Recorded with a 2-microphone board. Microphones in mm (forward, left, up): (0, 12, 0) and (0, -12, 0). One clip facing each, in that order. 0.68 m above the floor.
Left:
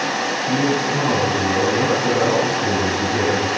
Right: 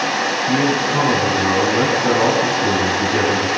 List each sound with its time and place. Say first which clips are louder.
0.5 s a man speaking: right 1 dB; 70° right (ahead or behind), 5 m